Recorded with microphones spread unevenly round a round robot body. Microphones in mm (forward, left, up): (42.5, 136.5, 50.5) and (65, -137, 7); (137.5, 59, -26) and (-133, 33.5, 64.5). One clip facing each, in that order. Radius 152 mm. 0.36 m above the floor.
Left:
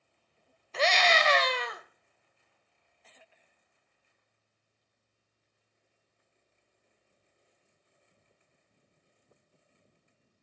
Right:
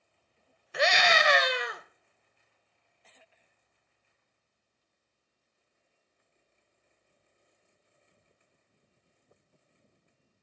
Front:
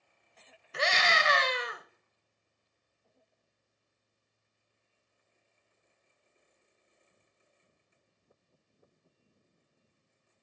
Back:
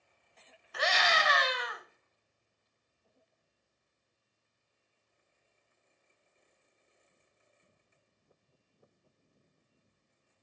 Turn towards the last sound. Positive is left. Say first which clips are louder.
# even, front 1 dB
turn(degrees=-20)